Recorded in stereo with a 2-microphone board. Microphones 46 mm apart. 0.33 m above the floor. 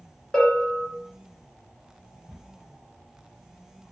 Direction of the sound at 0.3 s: 15° left (ahead or behind).